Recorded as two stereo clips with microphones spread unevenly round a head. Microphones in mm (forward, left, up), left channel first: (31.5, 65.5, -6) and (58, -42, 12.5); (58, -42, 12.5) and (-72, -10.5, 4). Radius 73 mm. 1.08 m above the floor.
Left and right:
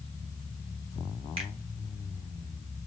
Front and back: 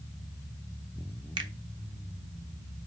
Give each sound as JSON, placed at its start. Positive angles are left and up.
{"t": 1.4, "sound": "a finger snap", "azimuth_deg": -135, "distance_m": 0.8}